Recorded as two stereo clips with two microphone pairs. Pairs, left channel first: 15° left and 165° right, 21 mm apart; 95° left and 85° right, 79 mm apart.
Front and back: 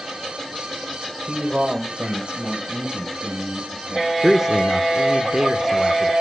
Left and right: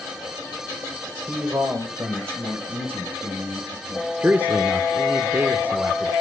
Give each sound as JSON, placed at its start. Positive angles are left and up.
{"t": 1.3, "sound": "a man speaking", "azimuth_deg": -130, "distance_m": 2.0}
{"t": 4.2, "sound": "a man speaking", "azimuth_deg": -125, "distance_m": 1.0}